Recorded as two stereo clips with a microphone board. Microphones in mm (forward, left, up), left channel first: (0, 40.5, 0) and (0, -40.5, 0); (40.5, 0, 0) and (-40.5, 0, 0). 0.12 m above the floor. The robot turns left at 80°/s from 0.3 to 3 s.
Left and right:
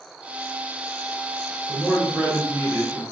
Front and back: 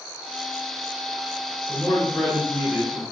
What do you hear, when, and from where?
1.7 s a man speaking: 10° left, 1.1 m; by 3.0 s 95° right, 1.1 m